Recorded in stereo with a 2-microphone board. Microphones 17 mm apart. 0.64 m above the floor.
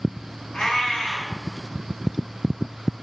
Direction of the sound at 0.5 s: 70° left (ahead or behind).